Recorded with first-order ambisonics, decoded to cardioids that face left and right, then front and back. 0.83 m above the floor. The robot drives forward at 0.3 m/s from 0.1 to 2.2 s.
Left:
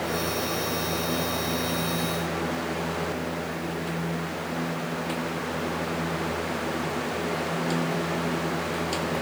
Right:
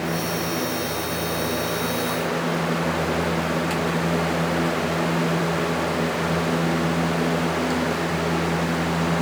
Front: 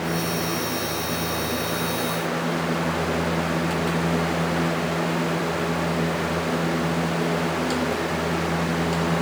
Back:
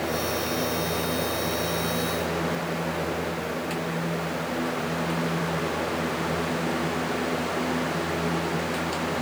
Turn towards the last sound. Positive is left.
No sound to turn to.